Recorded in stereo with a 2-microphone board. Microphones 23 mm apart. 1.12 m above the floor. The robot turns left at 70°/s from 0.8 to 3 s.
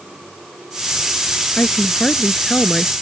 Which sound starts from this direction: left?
A woman speaking, at 1.6 s.